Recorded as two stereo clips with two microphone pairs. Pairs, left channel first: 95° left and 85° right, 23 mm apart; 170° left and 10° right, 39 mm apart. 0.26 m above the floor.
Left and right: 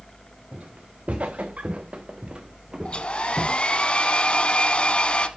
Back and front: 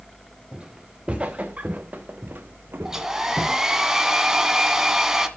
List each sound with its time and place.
0.5 s footsteps: 80° right, 2.5 m; by 3.6 s straight ahead, 1.4 m
2.9 s a hair dryer: 65° left, 1.3 m